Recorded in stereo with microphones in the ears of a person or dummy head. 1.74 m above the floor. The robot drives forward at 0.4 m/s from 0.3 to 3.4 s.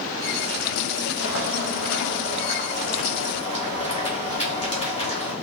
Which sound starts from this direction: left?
Boiling, at 1.2 s.